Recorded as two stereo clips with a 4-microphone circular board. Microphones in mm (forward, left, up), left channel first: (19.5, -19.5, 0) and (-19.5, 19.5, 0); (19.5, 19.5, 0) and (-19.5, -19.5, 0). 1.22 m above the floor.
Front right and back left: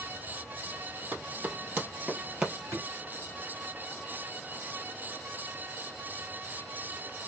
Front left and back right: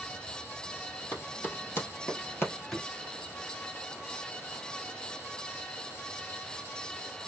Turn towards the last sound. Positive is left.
turn(degrees=120)